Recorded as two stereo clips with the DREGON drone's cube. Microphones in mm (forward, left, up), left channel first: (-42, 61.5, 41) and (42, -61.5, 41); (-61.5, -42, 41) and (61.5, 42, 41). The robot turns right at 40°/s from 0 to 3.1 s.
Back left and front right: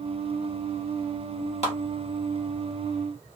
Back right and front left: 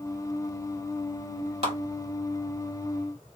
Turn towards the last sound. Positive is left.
turn(degrees=135)